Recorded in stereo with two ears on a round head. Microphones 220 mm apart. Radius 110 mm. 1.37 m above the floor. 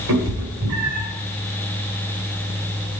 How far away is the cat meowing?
About 1.8 m.